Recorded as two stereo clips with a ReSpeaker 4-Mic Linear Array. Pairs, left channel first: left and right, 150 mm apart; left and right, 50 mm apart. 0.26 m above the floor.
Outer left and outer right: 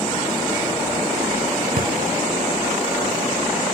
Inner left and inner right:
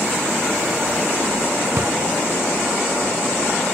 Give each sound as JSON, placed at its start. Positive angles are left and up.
{"t": 1.8, "sound": "a drawer", "side_deg": -65, "distance_m": 0.5}